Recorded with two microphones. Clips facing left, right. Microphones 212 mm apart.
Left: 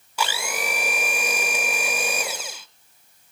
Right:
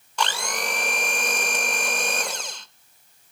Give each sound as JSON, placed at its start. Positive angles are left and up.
{"t": 0.2, "sound": "a blender", "side_deg": 5, "distance_m": 0.7}